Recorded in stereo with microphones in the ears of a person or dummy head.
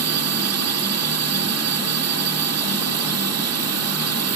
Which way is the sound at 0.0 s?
75° right (ahead or behind).